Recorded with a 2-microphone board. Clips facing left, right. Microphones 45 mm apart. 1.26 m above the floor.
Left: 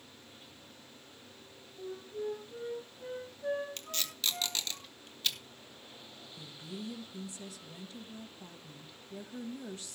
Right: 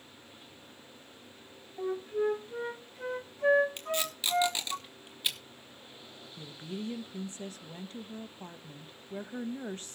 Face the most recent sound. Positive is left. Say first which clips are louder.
# right 4 dB
turn(degrees=-40)  # may be behind; listen again after turning